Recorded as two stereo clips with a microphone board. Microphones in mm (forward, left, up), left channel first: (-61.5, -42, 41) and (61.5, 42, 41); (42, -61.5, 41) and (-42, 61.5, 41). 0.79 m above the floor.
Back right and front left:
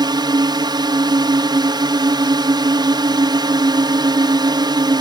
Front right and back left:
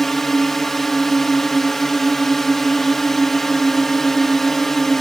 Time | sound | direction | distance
0.0 | a drone | 30° left | ?